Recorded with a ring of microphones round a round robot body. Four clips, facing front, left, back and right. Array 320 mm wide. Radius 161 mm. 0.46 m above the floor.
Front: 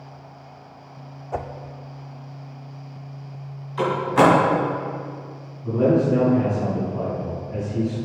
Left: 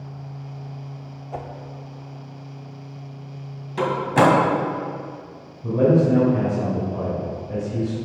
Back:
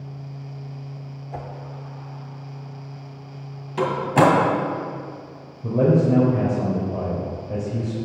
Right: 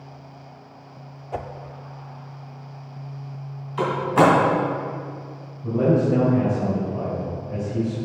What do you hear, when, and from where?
1.3 s a whoosh: 25° right, 0.6 m
3.8 s a door slam: 140° left, 2.5 m
5.6 s a man speaking: 165° left, 2.5 m